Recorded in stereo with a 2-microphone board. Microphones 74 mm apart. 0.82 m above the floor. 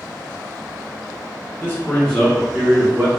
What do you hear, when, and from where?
1.6 s a man speaking: 30° left (ahead or behind), 0.9 m; by 3.1 s 25° right (ahead or behind), 1.0 m